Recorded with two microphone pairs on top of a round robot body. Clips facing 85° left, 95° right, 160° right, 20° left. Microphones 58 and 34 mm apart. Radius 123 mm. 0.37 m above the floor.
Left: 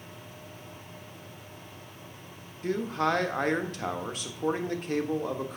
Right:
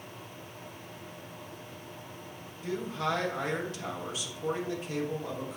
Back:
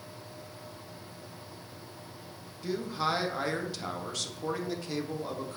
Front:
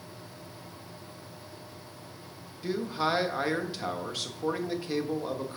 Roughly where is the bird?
I don't hear a bird.